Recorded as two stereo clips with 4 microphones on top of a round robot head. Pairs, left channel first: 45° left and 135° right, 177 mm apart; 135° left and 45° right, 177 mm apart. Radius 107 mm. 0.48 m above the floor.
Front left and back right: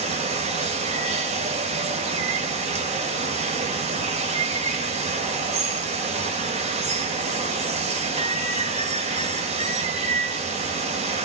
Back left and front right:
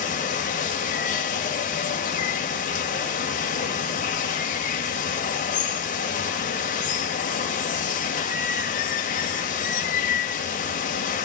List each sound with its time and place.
0.0 s running water: 175° left, 2.5 m